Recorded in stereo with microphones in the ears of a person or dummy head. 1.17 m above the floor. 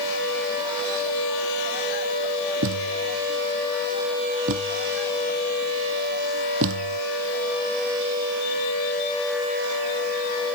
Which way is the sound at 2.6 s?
80° right.